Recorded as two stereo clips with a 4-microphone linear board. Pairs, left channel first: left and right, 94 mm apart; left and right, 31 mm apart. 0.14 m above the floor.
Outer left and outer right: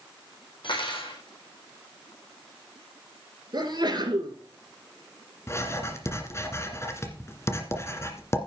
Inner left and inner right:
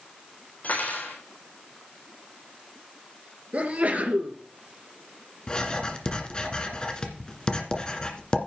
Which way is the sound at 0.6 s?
65° left (ahead or behind).